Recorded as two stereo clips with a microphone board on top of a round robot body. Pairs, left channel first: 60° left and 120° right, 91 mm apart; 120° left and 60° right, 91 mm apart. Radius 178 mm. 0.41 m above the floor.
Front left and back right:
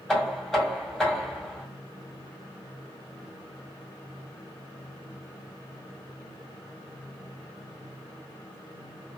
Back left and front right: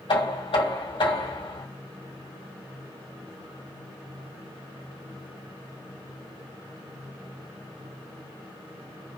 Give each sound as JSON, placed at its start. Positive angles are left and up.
{"t": 0.1, "sound": "knocking", "azimuth_deg": 145, "distance_m": 1.7}